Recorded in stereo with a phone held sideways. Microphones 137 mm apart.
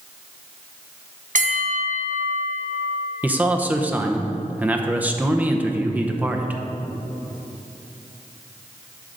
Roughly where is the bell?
Right.